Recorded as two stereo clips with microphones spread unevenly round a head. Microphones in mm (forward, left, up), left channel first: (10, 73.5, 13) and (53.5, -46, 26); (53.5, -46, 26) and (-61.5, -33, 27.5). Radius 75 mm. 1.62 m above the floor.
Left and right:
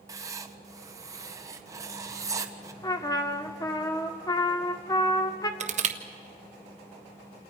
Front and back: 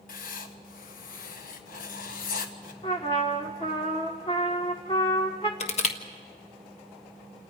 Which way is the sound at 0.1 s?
5° right.